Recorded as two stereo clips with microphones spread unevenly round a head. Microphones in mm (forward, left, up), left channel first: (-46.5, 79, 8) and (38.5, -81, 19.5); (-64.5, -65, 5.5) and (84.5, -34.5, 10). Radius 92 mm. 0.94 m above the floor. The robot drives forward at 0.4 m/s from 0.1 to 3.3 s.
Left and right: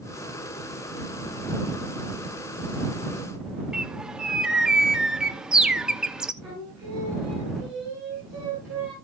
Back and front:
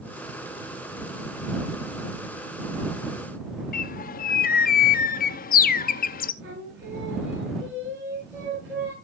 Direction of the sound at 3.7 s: 145° right.